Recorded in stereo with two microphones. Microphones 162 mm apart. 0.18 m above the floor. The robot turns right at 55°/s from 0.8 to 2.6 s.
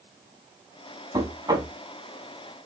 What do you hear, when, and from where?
1.1 s knocking: 25° right (ahead or behind), 0.7 m